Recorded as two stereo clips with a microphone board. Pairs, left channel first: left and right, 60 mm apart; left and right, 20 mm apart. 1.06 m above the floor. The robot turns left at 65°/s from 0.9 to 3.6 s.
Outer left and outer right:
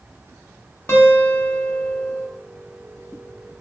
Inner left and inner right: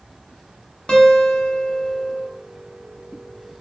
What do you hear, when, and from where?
0.9 s a guitar: 85° left, 0.8 m; by 2.2 s straight ahead, 0.8 m